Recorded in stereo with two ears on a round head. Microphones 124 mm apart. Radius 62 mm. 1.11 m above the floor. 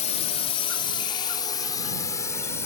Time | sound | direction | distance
0.0 | a drone | 50° left (ahead or behind) | ?